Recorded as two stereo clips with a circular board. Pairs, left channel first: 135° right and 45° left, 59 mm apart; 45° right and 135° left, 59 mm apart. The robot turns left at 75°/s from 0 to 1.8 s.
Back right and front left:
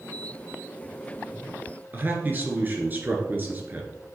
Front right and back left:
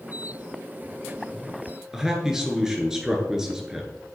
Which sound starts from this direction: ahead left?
A man speaking, at 1.9 s.